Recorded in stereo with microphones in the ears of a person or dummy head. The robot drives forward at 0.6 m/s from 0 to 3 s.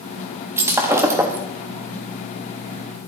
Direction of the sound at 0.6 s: 5° right (ahead or behind).